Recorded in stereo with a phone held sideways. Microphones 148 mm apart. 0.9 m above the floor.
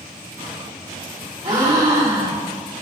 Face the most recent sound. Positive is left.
turn(degrees=-45)  # may be behind; listen again after turning